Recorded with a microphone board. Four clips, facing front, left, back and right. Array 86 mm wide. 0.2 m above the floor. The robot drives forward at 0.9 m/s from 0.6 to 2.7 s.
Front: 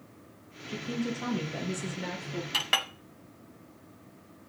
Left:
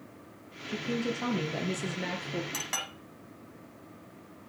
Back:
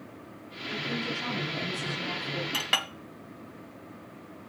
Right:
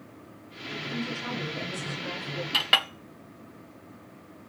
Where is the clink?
75° right, 0.7 m; by 2.9 s 95° right, 0.7 m.